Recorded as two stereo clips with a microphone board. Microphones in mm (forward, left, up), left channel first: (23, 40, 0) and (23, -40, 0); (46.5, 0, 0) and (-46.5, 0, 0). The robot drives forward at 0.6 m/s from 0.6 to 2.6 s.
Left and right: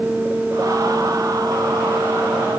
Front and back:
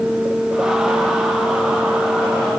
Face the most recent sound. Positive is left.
No sound to turn to.